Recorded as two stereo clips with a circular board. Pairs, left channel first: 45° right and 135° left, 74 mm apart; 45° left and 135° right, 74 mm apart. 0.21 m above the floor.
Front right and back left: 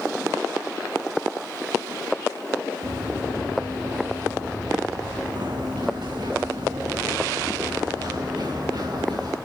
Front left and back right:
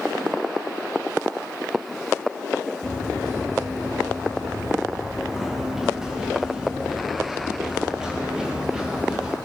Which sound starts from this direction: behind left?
Running footsteps, at 2.8 s.